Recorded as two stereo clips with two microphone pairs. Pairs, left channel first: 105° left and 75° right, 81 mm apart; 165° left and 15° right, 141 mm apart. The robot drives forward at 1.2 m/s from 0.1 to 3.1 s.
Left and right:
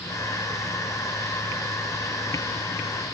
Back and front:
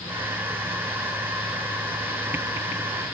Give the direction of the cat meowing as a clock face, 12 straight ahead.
I don't hear a cat meowing.